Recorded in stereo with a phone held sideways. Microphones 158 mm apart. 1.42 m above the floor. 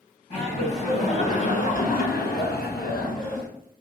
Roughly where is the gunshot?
No gunshot in this recording.